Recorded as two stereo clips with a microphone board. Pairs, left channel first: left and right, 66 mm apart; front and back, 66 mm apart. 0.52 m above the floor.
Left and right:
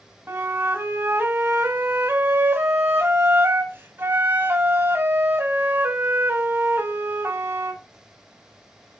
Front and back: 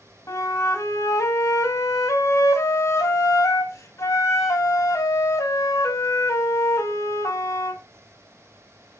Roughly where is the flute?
Ahead right.